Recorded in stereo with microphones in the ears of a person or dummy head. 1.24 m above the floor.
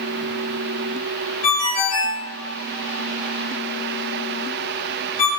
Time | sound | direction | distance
1.4 | a ringtone | 35° left (ahead or behind) | 1.3 m